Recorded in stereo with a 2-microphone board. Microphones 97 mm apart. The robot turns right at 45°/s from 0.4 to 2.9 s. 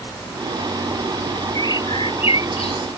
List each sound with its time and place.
1.6 s a bird: 40° left; by 2.9 s 100° left